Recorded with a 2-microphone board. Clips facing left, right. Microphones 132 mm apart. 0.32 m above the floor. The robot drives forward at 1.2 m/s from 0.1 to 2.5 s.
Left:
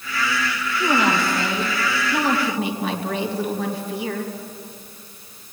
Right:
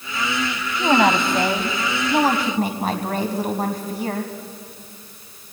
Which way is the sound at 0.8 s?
55° right (ahead or behind).